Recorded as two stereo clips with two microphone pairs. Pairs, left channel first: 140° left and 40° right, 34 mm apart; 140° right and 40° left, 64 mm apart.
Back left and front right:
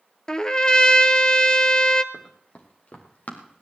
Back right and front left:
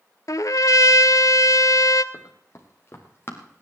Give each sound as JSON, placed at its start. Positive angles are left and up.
{"t": 0.3, "sound": "a trumpet", "azimuth_deg": -155, "distance_m": 0.6}
{"t": 2.1, "sound": "running footsteps", "azimuth_deg": 180, "distance_m": 3.5}